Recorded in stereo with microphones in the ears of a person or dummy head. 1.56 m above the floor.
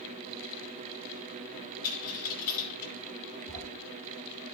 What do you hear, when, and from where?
1.8 s a dropped coin: 45° left (ahead or behind), 1.7 m
3.5 s a sliding door: 45° right (ahead or behind), 6.5 m